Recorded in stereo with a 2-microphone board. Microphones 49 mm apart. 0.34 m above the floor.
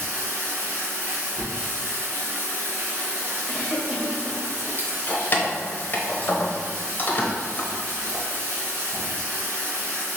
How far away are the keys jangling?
About 0.7 m.